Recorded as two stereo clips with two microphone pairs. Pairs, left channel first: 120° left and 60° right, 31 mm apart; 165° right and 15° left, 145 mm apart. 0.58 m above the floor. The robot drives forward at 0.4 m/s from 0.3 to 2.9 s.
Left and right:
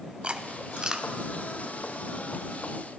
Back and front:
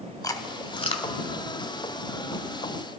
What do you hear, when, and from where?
0.2 s chewing: 105° right, 0.8 m; by 1.1 s 125° right, 0.9 m